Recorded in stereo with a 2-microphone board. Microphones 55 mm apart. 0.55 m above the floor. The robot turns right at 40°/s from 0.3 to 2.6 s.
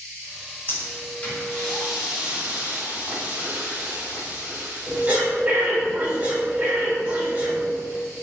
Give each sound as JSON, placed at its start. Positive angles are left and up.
{"t": 0.7, "sound": "breathing", "side_deg": 50, "distance_m": 1.6}